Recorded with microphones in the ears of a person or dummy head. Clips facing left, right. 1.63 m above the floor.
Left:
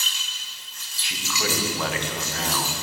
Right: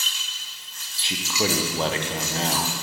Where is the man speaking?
25° right (ahead or behind), 0.8 m.